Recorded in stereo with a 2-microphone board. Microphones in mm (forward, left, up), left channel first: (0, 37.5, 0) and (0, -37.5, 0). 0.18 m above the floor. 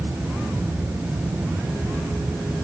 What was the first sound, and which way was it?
Only background noise.